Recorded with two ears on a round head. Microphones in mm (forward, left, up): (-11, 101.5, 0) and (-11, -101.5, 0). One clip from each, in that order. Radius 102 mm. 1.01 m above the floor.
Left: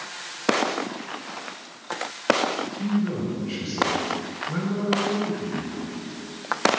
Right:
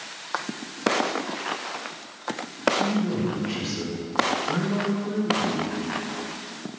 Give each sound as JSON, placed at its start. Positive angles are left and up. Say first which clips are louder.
{"t": 2.8, "sound": "a man speaking", "louder": "right 3 dB", "side_deg": -45, "distance_m": 2.5}